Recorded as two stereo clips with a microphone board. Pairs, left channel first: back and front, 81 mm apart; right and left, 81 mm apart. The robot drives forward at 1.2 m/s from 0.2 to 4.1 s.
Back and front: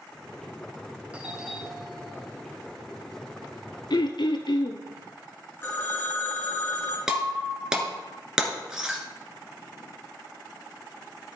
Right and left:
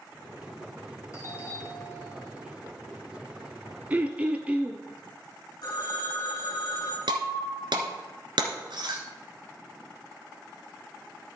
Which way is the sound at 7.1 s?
80° left.